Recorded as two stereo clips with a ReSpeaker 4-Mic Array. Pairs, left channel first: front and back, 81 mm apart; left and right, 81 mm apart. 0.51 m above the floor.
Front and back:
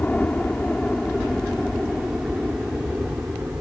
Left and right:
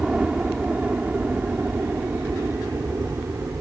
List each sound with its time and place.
0.0 s a helicopter: 25° right; by 3.6 s 120° right